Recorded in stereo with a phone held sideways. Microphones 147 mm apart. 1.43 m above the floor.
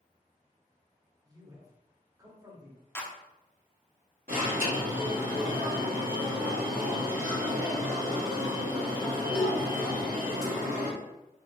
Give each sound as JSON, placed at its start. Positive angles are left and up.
{"t": 1.2, "sound": "a man speaking", "side_deg": -25, "distance_m": 0.9}
{"t": 3.0, "sound": "a clap", "side_deg": 15, "distance_m": 0.6}
{"t": 4.3, "sound": "an alarm", "side_deg": -85, "distance_m": 1.4}